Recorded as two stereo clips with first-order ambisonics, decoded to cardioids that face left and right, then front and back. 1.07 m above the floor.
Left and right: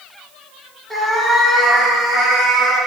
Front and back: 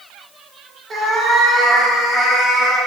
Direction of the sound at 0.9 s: 160° right.